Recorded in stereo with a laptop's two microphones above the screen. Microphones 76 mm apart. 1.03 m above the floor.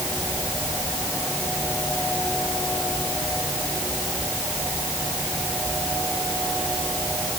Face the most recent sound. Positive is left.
No sound to turn to.